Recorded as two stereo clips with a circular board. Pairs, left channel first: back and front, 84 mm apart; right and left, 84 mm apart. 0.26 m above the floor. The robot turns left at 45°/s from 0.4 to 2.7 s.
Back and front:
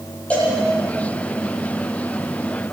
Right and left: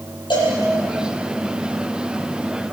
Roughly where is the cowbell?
Right.